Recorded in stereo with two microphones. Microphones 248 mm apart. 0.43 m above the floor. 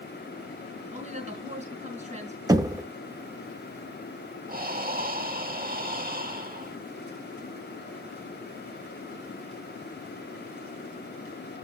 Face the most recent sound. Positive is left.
turn(degrees=-35)  # may be behind; listen again after turning